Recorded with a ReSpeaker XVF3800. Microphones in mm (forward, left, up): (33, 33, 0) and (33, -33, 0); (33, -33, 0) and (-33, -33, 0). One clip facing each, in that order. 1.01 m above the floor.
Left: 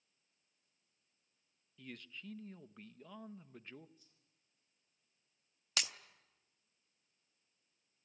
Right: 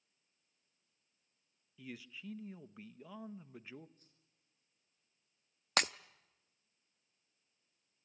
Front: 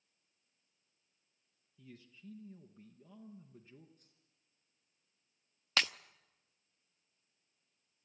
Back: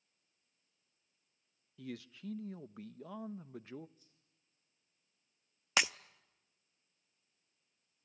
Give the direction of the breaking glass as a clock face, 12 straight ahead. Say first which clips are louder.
Right 8 dB, back 2 dB; 4 o'clock.